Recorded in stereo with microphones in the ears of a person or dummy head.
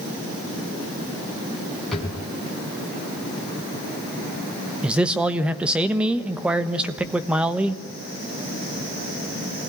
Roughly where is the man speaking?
Centre.